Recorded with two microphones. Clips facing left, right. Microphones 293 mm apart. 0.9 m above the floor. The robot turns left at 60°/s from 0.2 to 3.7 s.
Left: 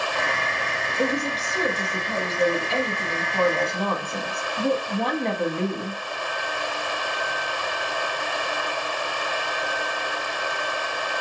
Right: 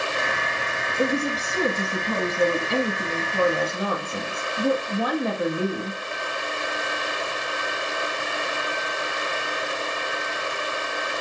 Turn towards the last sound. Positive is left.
turn(degrees=-175)